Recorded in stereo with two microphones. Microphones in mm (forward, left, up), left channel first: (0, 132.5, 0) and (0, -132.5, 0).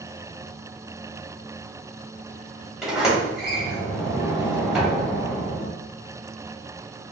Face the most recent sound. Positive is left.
turn(degrees=0)  # may be behind; listen again after turning